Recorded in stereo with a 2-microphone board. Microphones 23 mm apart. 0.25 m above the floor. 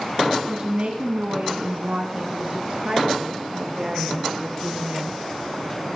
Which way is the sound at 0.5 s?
55° right (ahead or behind).